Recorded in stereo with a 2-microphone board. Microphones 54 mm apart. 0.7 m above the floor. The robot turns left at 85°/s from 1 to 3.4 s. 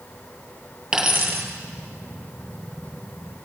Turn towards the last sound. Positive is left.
turn(degrees=145)